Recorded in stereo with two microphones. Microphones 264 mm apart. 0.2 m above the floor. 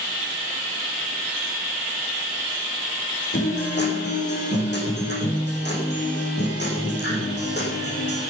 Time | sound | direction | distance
3.3 | a guitar | 45° left (ahead or behind) | 7.5 m